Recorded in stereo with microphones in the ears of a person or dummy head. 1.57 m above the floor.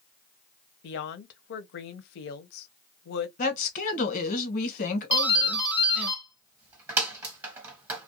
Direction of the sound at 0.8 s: 65° left (ahead or behind).